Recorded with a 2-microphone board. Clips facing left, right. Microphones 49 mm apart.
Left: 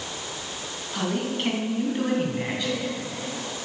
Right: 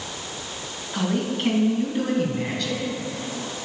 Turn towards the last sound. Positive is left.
turn(degrees=20)  # may be behind; listen again after turning